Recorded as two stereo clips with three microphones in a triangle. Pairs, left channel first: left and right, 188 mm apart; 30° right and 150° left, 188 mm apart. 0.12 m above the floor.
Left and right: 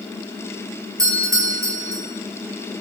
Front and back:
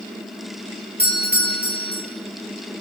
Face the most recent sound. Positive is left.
turn(degrees=-20)